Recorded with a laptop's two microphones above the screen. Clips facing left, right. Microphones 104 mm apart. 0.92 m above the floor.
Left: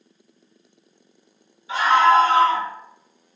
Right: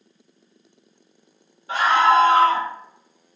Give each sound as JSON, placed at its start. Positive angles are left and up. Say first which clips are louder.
{"t": 1.7, "sound": "a scream", "louder": "left 1 dB", "side_deg": -50, "distance_m": 1.2}